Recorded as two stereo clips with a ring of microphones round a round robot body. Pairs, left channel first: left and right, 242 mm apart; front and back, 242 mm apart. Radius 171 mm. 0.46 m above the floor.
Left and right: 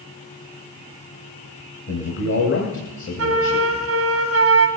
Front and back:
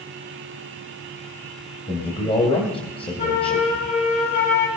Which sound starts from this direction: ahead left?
A man speaking, at 1.9 s.